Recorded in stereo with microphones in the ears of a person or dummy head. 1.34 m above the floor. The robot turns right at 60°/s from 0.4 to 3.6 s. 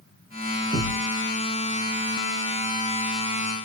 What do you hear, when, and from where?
0.7 s a thud: 20° right (ahead or behind), 1.5 m; by 1.1 s 40° right (ahead or behind), 1.5 m